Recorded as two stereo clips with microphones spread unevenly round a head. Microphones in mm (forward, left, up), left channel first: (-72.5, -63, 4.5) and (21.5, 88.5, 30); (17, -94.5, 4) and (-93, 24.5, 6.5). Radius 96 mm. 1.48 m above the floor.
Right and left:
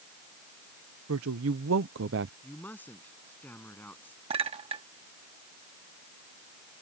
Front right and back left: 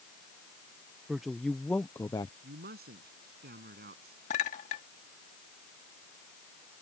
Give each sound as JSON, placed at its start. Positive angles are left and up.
{"t": 1.1, "sound": "a woman speaking", "azimuth_deg": 45}
{"t": 2.4, "sound": "a man speaking", "azimuth_deg": 155}
{"t": 4.3, "sound": "a clink", "azimuth_deg": 5}